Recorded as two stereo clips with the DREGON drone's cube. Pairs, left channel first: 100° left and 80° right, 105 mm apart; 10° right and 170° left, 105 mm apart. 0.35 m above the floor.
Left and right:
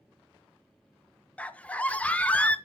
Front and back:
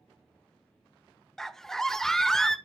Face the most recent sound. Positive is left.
turn(degrees=65)